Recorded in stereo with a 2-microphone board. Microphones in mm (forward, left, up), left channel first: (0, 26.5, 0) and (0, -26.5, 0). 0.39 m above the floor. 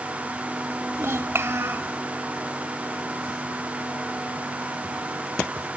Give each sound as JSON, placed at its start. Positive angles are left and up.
{"t": 0.9, "sound": "a child speaking", "side_deg": -55, "distance_m": 1.0}